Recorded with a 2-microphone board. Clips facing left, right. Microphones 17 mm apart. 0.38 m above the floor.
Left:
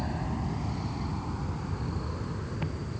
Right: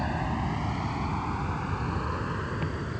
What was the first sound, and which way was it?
An aircraft, 35° right (ahead or behind).